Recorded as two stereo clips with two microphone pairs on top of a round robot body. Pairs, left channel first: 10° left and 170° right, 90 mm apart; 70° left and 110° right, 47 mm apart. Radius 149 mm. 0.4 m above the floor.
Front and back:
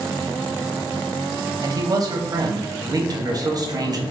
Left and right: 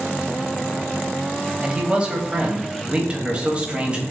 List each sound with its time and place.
1.6 s a man speaking: 150° right, 0.9 m